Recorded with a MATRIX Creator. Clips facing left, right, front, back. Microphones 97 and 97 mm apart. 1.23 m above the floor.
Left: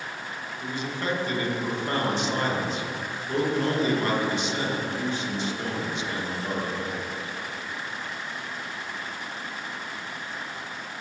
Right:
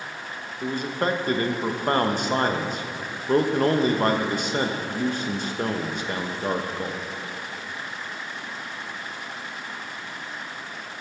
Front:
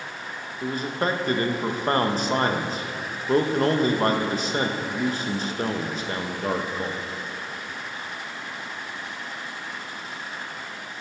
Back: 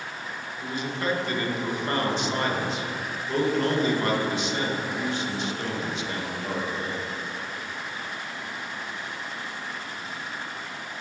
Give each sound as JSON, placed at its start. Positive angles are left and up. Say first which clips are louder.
{"t": 0.6, "sound": "a man speaking", "louder": "right 5 dB, front 4 dB", "azimuth_deg": -45, "distance_m": 1.0}